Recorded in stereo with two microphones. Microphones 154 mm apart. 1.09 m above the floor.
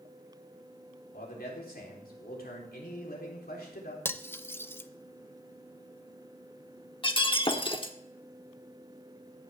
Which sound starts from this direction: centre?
Cutlery clinking, at 4.0 s.